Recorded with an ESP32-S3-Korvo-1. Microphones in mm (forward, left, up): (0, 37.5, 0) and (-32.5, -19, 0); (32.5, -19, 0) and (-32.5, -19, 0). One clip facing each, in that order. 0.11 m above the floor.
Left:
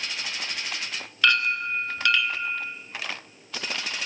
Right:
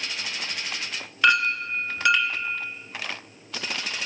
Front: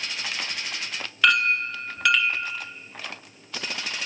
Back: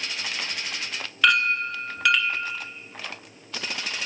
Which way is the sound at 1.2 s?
90° right.